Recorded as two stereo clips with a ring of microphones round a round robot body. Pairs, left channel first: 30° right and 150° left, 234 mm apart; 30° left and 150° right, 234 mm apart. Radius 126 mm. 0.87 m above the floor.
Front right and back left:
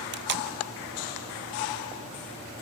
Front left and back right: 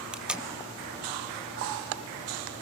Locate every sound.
0.1 s tape being pulled: 125° left, 1.4 m